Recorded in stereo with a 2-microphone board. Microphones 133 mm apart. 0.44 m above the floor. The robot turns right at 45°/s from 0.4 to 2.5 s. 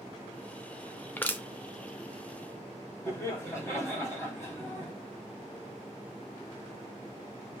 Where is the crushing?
15° left (ahead or behind), 0.6 m; by 1.4 s 10° left (ahead or behind), 0.6 m.